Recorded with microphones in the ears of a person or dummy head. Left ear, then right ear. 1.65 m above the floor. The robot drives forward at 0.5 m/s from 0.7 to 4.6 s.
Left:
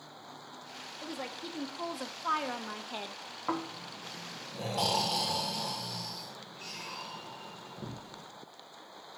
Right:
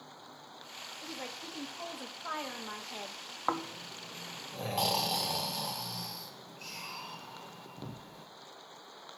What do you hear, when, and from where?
1.0 s a woman speaking: 5° left (ahead or behind), 2 m
3.5 s snoring: 40° right (ahead or behind), 1.3 m; by 8.3 s 30° right (ahead or behind), 1.8 m